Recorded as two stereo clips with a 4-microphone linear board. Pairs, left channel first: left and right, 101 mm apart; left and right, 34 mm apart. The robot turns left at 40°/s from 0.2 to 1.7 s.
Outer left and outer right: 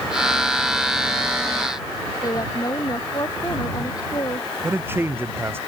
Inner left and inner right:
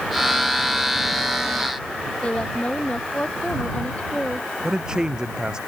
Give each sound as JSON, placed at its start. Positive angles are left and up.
{"t": 2.2, "sound": "a woman speaking", "side_deg": 40}
{"t": 4.6, "sound": "a man speaking", "side_deg": -20}